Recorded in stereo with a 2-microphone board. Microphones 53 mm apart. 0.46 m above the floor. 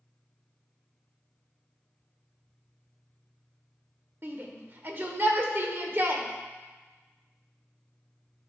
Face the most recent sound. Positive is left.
turn(degrees=-45)  # may be behind; listen again after turning